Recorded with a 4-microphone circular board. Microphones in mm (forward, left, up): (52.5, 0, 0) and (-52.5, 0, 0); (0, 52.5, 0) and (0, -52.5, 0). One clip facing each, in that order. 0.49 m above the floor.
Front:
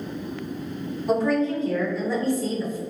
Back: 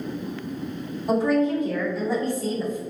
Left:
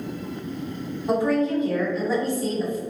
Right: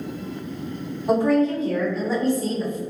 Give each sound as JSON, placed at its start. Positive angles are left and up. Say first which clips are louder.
{"t": 1.1, "sound": "a woman speaking", "louder": "back 1 dB, right 3 dB", "azimuth_deg": -100, "distance_m": 1.8}